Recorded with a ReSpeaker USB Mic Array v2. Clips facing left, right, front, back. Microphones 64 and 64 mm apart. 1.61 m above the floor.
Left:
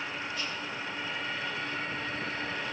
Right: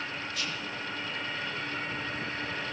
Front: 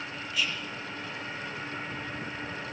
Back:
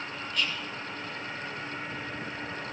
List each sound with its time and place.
0.3 s whispering: 85° right, 1.5 m